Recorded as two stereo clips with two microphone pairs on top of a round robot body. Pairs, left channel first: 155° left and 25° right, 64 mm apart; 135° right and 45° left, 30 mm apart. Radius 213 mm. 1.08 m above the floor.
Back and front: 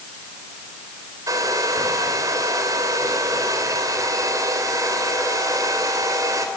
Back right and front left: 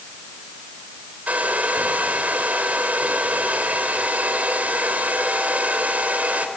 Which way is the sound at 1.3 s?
10° left.